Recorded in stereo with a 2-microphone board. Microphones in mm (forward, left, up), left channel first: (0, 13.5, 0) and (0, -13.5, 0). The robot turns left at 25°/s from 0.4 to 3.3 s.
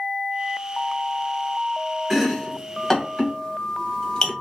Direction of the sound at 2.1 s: 10° right (ahead or behind).